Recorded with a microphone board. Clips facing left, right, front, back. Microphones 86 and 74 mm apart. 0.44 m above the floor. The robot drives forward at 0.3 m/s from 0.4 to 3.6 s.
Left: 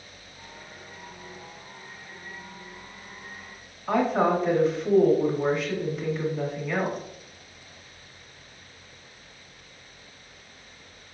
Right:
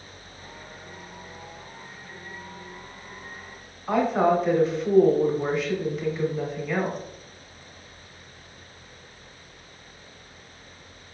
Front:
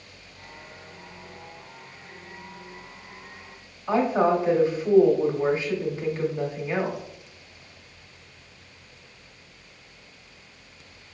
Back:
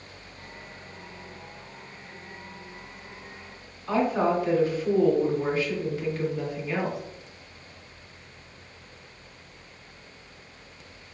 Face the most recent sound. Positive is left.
turn(degrees=0)